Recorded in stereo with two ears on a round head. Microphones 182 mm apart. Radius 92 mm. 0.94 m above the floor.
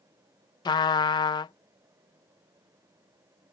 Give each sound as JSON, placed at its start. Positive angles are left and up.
{"t": 0.7, "sound": "a trumpet", "side_deg": 20}